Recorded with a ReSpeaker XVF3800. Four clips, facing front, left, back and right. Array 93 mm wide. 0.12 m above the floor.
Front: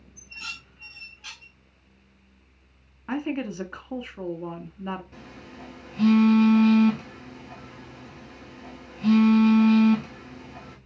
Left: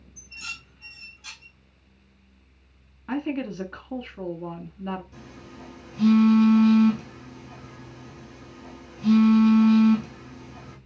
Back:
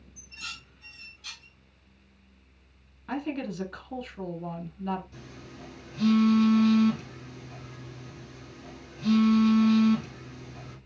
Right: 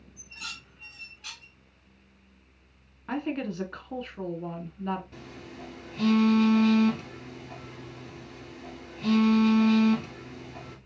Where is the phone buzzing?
45° right, 1.9 m.